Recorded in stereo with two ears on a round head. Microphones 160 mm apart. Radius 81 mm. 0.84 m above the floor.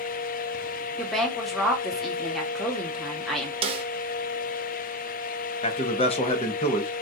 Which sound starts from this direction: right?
A snare drum, at 3.6 s.